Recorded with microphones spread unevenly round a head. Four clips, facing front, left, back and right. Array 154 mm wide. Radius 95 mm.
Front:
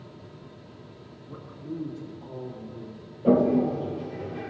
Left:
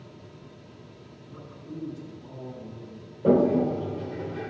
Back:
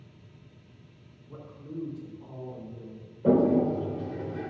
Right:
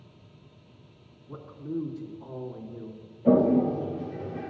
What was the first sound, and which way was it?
A man speaking, 45° right.